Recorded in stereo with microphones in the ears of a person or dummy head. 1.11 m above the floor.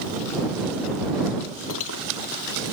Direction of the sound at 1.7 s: 80° left.